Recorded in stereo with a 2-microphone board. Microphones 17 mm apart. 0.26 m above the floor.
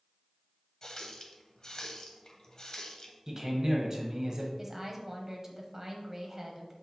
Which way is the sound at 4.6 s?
25° right (ahead or behind).